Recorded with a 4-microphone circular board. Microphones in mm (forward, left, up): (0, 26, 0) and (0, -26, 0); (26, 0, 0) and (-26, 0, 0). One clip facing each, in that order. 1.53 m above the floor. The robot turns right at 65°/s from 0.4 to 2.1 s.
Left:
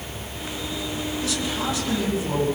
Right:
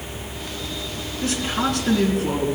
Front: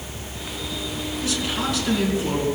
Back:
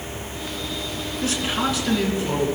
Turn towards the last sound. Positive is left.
turn(degrees=-70)